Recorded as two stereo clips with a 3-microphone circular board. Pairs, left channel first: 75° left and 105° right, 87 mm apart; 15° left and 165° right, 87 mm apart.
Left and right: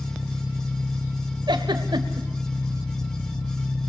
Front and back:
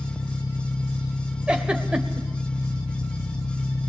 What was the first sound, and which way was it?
An engine running, straight ahead.